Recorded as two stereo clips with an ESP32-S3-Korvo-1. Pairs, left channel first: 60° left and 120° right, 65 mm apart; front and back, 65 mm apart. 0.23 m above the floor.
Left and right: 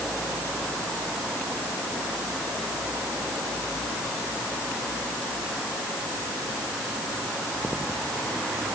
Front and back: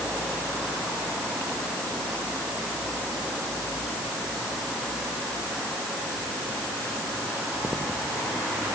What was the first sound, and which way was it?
Only background noise.